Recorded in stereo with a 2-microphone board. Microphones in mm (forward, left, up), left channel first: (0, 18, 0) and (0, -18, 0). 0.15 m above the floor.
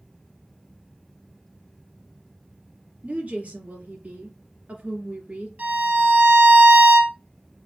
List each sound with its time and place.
3.0 s a woman speaking: 45° right (ahead or behind), 2 m
5.6 s a violin: 45° right (ahead or behind), 1.9 m